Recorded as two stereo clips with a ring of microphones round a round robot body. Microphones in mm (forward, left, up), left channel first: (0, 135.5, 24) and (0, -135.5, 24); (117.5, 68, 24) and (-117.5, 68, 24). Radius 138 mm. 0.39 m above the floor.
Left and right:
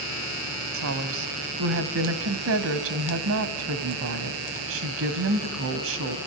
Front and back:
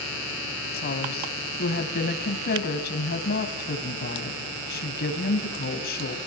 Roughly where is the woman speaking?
Ahead right.